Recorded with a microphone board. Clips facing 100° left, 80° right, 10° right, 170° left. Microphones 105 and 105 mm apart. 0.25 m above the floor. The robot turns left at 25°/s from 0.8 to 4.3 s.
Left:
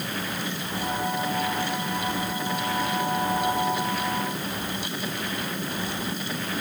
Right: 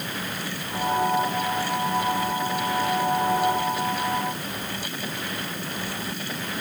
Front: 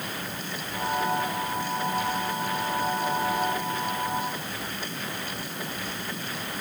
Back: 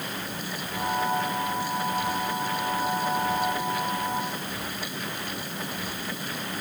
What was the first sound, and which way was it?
Only background noise.